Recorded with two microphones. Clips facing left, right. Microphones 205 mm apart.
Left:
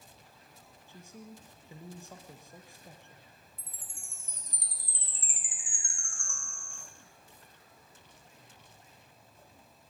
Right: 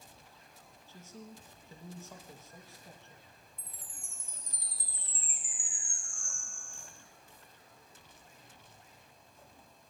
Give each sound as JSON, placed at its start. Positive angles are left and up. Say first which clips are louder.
{"t": 0.9, "sound": "a man speaking", "louder": "left 1 dB", "side_deg": 15, "distance_m": 3.5}
{"t": 3.6, "sound": "a chime", "louder": "even", "side_deg": 80, "distance_m": 2.5}